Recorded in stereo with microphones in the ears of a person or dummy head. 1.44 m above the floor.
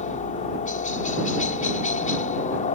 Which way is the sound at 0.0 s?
35° left (ahead or behind).